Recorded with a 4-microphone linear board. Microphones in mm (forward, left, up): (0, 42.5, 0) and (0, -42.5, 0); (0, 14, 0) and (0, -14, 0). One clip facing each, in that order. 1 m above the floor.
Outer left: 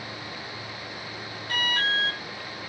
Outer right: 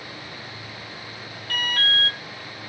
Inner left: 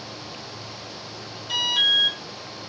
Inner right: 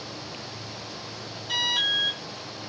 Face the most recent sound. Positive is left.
turn(degrees=0)  # may be behind; listen again after turning